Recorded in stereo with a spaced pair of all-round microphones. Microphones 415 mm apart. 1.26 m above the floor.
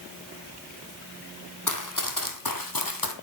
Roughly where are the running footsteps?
Left.